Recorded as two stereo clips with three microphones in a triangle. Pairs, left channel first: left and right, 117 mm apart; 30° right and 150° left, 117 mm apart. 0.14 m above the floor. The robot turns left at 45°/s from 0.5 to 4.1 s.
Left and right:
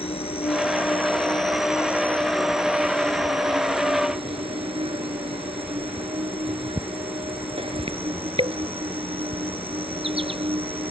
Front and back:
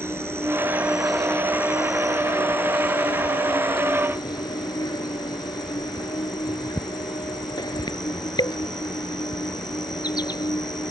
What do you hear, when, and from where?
0.0 s an insect: 85° left; by 10.9 s 75° right